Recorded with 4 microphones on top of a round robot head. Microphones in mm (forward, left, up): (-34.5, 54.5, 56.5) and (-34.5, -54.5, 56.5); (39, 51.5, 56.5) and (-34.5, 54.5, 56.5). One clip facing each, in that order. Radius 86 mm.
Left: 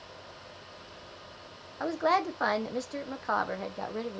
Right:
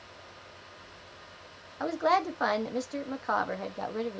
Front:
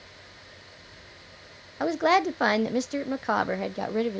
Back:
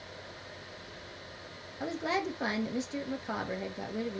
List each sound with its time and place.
1.8 s a woman speaking: 5° right, 0.5 m